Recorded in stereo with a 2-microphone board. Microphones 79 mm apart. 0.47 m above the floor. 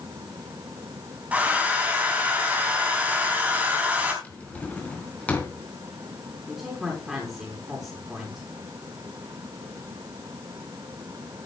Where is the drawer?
15° left (ahead or behind), 3 m.